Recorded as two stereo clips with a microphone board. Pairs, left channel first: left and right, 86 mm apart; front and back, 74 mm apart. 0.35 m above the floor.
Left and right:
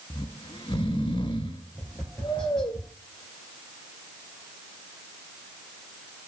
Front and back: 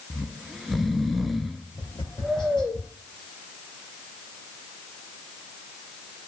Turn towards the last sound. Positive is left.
turn(degrees=10)